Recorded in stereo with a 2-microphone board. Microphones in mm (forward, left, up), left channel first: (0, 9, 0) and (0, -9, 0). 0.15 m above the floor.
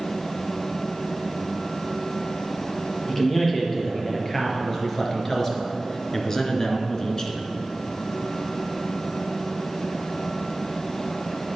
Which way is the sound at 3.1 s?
15° left (ahead or behind).